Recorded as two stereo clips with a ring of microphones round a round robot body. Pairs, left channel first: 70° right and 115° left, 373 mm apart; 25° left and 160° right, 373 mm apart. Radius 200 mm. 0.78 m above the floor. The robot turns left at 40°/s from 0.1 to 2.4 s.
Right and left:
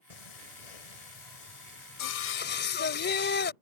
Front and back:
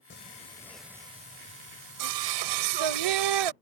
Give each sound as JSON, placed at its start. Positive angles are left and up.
{"t": 0.1, "sound": "singing", "azimuth_deg": -40}